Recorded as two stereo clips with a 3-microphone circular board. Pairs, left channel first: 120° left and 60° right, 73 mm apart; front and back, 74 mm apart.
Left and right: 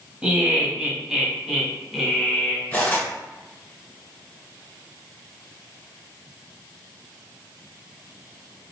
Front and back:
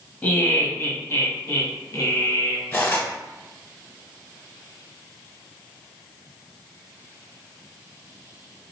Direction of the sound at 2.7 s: 55° left.